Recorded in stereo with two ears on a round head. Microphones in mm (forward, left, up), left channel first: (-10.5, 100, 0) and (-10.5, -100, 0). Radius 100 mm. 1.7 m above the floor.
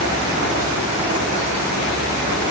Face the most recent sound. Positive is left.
No sound to turn to.